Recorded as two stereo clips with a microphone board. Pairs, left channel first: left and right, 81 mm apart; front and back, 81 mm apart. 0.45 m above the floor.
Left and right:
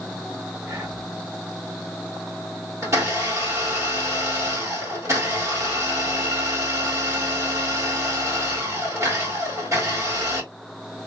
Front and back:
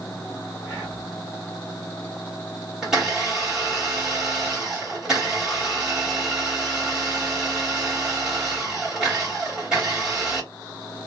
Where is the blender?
100° right, 1.7 m.